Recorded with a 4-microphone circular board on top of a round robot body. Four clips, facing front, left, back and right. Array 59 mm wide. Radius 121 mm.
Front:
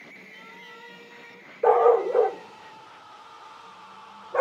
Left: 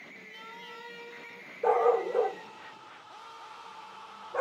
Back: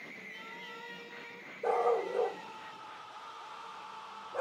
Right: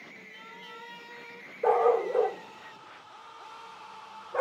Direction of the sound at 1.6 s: 5° right.